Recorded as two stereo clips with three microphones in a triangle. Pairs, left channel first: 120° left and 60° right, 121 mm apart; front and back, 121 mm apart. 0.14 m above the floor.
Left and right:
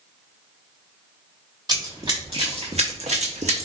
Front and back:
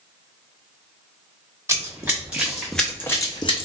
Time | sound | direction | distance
1.7 | running footsteps | 110° right | 1.3 m